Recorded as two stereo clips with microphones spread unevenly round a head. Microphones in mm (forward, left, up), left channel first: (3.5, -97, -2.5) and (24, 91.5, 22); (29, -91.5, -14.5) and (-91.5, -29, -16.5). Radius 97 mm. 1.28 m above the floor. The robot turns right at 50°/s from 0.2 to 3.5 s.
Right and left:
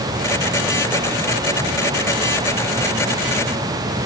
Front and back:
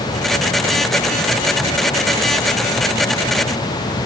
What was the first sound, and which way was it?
Only background noise.